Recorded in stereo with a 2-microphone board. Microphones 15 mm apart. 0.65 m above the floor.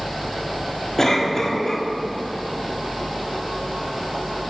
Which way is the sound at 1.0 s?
30° left (ahead or behind).